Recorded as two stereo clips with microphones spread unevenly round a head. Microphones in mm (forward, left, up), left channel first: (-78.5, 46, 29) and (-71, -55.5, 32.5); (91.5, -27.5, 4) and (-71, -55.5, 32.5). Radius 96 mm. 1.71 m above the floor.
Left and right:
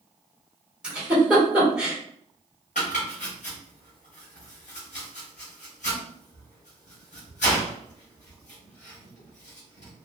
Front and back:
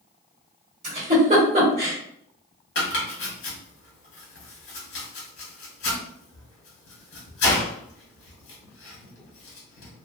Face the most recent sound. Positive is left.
turn(degrees=50)